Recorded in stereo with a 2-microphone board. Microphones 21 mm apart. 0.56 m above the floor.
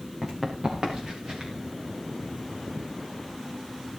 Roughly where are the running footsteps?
Centre.